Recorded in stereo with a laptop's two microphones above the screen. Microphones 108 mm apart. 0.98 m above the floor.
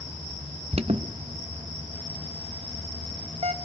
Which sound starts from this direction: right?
An alarm, at 0.7 s.